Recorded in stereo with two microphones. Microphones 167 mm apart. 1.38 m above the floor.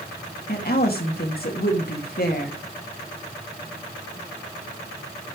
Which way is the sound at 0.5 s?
65° left (ahead or behind).